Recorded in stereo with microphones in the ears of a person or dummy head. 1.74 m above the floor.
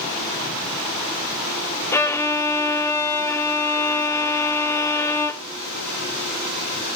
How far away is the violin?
About 0.8 m.